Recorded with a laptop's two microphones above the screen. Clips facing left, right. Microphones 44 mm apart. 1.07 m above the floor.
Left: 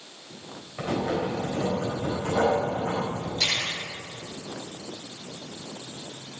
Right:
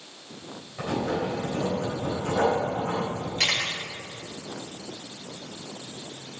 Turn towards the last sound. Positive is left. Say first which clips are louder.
# right 2 dB
turn(degrees=-65)  # may be behind; listen again after turning